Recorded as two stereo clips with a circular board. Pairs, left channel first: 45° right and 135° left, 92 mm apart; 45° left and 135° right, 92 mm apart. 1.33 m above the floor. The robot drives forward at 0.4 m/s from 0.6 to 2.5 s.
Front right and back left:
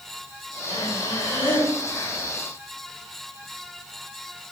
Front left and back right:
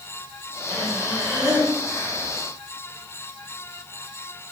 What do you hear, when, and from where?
0.7 s breathing: 40° right, 4 m; by 2.3 s 50° right, 3.5 m